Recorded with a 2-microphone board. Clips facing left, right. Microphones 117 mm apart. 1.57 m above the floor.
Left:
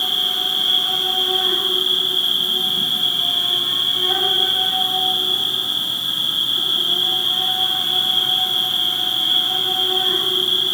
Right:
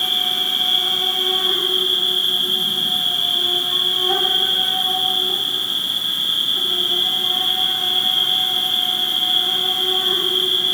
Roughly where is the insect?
Right.